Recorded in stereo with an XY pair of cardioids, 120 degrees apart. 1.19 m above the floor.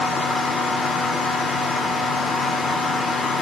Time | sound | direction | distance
0.0 | a fan | 40° left | 0.9 m